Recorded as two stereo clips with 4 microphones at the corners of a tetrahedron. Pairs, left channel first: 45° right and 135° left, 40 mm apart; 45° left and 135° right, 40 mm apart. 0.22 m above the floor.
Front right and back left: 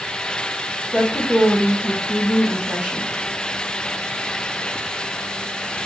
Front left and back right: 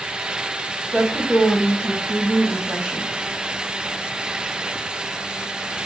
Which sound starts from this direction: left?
A woman speaking, at 0.9 s.